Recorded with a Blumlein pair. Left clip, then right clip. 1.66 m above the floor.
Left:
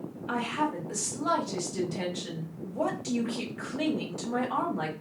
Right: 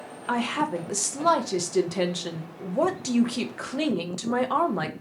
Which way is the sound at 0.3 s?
60° right.